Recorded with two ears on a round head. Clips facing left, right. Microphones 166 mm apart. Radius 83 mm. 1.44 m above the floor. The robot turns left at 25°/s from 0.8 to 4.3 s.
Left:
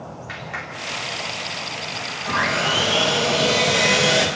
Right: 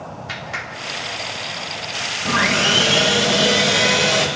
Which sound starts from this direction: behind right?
Sawing, at 2.2 s.